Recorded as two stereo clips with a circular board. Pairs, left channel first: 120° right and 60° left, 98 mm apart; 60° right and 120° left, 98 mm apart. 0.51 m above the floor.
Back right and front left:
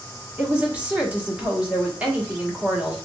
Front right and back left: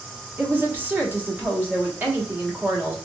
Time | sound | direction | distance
0.4 | a woman speaking | 110° left | 0.9 m